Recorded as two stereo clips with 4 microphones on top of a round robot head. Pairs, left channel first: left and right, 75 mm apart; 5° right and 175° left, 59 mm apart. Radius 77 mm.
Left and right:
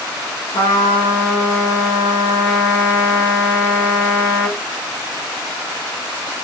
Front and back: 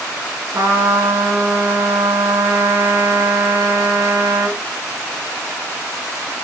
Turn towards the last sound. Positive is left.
turn(degrees=140)